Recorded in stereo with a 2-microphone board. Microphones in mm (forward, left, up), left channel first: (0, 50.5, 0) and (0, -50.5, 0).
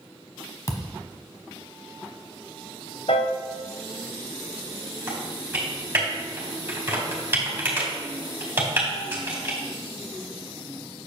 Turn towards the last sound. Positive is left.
turn(degrees=-20)  # may be behind; listen again after turning